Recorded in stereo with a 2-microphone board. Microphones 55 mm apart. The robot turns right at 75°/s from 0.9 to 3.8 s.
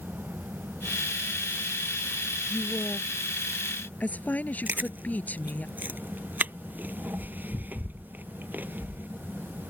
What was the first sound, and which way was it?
A woman speaking, 45° left.